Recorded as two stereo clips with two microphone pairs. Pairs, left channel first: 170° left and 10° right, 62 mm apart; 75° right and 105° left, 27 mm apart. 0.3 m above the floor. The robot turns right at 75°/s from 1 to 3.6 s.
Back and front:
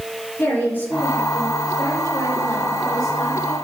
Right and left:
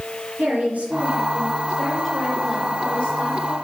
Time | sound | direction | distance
0.4 | a woman speaking | 110° left | 4 m